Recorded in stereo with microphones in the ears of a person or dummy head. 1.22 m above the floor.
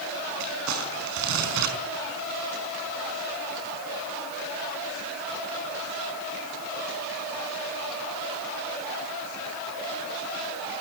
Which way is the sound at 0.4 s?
75° right (ahead or behind).